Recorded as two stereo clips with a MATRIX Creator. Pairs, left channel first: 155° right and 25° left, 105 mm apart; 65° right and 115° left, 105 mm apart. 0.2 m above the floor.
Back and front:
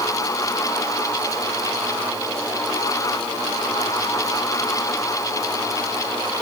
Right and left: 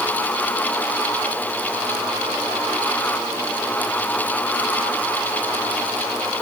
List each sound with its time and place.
Only background noise.